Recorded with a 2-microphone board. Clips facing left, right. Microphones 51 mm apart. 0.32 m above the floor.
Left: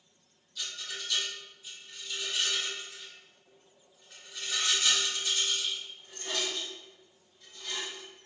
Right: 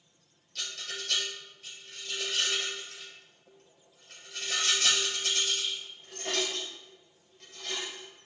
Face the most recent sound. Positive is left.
turn(degrees=-80)